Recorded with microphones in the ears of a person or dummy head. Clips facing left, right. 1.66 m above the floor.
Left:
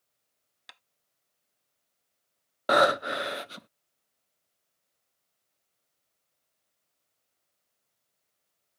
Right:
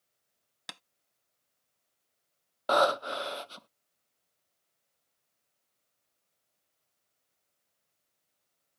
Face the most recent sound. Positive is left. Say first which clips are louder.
# left 3 dB
turn(degrees=30)  # may be behind; listen again after turning